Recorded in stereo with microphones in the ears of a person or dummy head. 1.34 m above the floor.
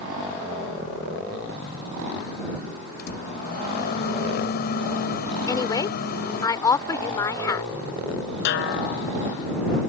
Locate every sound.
3.0 s a microwave: 55° left (ahead or behind)
5.5 s a woman speaking: 20° left (ahead or behind)
8.4 s a snare drum: 65° left (ahead or behind)